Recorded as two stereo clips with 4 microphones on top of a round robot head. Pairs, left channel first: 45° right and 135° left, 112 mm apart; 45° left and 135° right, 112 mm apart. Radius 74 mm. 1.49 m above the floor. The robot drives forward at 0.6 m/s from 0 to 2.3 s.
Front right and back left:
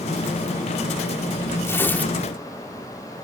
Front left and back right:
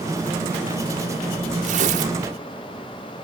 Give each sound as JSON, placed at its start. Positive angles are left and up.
{"t": 1.6, "sound": "tearing paper", "azimuth_deg": -110, "distance_m": 1.3}